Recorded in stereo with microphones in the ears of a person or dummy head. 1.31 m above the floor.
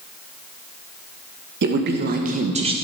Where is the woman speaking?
60° right (ahead or behind), 1.4 m; by 2.7 s 20° right (ahead or behind), 0.9 m.